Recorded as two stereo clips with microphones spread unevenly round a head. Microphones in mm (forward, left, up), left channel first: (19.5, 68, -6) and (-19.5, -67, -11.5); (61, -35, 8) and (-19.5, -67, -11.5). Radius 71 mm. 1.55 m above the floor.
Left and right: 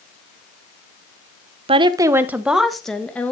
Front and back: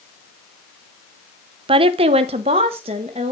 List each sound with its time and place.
1.7 s a woman speaking: 150° right, 0.7 m; by 3.3 s 150° left, 1.4 m